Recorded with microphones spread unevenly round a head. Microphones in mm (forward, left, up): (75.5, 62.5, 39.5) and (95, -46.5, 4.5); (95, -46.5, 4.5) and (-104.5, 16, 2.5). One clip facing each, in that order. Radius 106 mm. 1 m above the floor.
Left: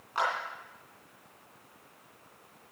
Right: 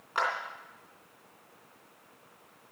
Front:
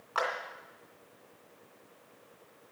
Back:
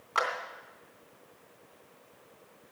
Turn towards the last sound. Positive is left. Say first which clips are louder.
# even, even
turn(degrees=-140)